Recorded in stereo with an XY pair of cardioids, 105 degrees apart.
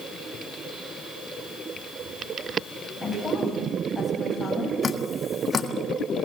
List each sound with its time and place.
3.0 s a woman speaking: 25° left, 9 m
4.8 s dripping: 35° left, 1.6 m